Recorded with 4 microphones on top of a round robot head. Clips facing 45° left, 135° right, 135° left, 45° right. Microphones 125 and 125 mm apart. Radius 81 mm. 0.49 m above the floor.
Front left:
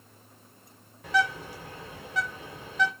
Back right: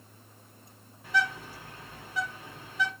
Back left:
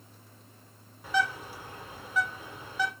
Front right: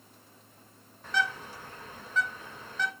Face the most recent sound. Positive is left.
turn(degrees=50)